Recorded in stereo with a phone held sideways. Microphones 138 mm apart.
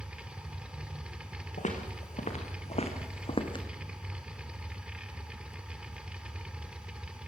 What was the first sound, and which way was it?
A machine running, 10° right (ahead or behind).